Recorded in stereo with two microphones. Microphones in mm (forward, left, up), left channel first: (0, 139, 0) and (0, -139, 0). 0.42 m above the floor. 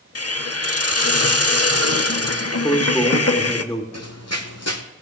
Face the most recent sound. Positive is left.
turn(degrees=70)  # may be behind; listen again after turning